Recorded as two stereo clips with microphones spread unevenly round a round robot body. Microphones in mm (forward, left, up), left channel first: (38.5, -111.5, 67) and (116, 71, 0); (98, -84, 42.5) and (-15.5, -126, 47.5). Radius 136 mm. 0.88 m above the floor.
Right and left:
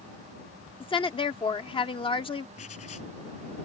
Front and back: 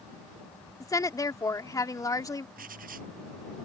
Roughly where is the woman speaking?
Ahead right.